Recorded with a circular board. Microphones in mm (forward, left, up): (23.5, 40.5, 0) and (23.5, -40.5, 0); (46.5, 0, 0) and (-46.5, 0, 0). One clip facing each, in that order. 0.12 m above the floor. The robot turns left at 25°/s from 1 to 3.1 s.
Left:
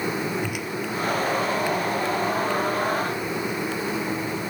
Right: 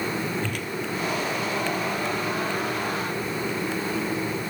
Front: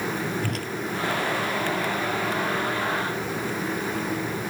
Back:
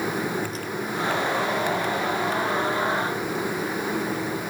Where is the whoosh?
10° left, 1.1 m.